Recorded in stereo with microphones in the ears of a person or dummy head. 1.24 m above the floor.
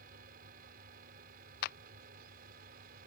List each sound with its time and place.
0.0 s a fan: 50° right (ahead or behind)
1.6 s a clap: 55° left (ahead or behind)